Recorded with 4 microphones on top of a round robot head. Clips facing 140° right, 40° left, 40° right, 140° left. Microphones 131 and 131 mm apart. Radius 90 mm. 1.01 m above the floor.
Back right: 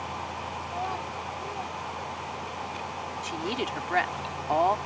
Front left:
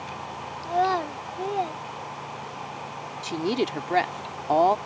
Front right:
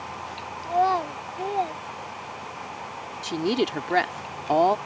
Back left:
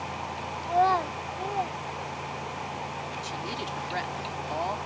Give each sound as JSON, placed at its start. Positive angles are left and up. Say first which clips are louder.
{"t": 0.6, "sound": "a child speaking", "louder": "front left 12 dB, front right 1 dB", "azimuth_deg": 45}
{"t": 3.2, "sound": "a woman speaking", "louder": "front left 7 dB, front right 10 dB", "azimuth_deg": -15}